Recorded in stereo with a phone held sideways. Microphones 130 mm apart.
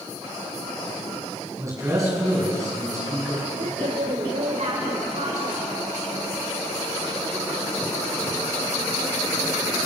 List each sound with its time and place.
1.6 s a man speaking: 25° right (ahead or behind), 7 m
3.6 s a woman speaking: 65° right (ahead or behind), 3.5 m